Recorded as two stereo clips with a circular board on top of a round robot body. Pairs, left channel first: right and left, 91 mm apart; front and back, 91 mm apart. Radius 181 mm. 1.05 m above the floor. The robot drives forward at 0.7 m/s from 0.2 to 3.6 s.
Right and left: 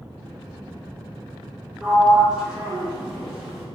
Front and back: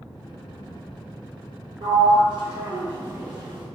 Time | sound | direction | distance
1.8 | a sliding door | 170° left | 1.2 m